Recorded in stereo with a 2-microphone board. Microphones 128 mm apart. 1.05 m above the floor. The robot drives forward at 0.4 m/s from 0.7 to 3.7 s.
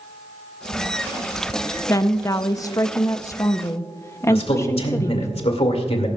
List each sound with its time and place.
1.9 s a woman speaking: 25° left (ahead or behind), 0.7 m; by 5.3 s 20° left (ahead or behind), 0.7 m
4.3 s a man speaking: 50° left (ahead or behind), 2 m